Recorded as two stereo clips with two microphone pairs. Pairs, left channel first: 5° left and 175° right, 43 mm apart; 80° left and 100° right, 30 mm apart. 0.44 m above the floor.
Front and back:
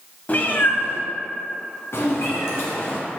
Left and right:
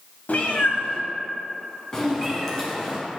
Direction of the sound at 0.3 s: 55° left.